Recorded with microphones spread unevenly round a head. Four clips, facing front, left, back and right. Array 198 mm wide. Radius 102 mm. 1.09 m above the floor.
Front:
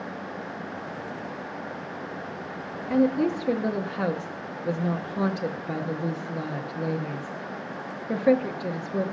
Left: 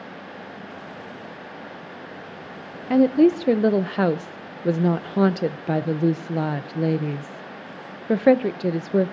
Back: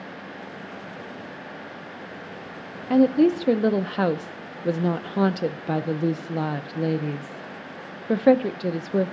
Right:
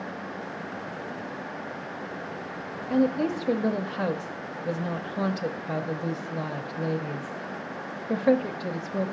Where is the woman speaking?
110° left, 0.6 m.